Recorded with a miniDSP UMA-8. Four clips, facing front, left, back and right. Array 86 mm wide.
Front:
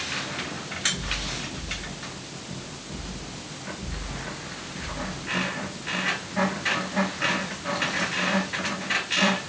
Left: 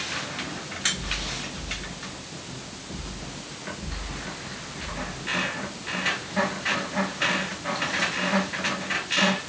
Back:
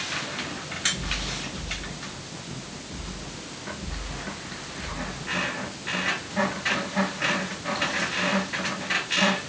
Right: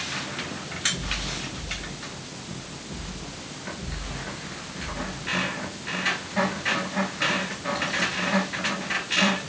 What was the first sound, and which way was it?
Only background noise.